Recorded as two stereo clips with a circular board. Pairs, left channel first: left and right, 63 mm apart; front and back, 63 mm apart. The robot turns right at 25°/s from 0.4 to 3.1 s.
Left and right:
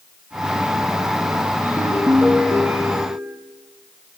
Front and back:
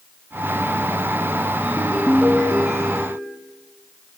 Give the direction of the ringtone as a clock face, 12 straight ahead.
4 o'clock.